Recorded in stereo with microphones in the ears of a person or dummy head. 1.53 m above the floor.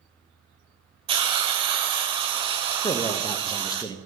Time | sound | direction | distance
1.1 | a hiss | 25° right (ahead or behind) | 0.7 m
2.8 | a man speaking | 15° left (ahead or behind) | 0.8 m